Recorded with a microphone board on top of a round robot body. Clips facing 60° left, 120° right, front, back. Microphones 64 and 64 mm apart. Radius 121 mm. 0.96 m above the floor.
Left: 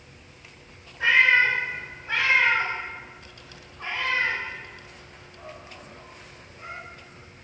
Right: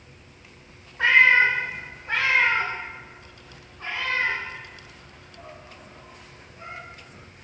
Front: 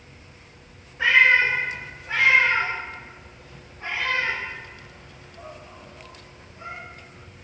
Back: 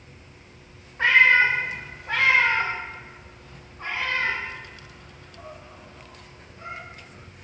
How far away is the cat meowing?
About 0.9 m.